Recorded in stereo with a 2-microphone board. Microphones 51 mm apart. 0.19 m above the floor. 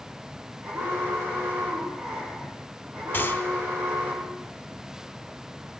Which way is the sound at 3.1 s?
40° left (ahead or behind).